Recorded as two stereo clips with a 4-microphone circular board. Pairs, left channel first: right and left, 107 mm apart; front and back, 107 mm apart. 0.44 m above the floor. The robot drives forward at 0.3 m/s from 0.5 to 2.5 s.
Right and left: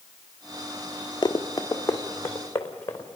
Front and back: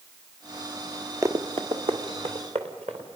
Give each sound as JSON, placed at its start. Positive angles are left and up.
{"t": 1.2, "sound": "running footsteps", "azimuth_deg": -125, "distance_m": 0.7}